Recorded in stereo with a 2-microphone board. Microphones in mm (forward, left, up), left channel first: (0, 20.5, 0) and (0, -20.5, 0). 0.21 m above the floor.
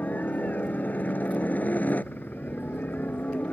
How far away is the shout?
I don't hear a shout.